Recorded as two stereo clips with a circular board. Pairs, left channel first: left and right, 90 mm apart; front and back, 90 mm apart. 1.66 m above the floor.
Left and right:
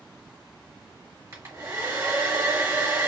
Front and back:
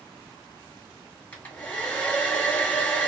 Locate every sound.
1.3 s a hair dryer: 60° right, 1.5 m